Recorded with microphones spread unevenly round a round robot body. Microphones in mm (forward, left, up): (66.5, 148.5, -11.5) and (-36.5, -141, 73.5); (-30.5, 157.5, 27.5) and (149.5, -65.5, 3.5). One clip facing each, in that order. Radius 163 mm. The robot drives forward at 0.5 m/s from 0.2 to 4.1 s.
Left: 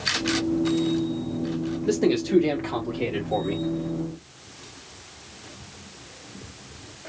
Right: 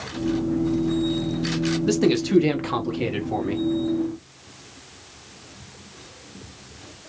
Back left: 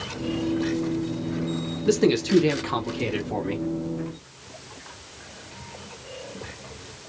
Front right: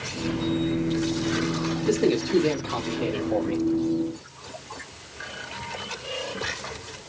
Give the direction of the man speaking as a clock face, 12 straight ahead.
6 o'clock.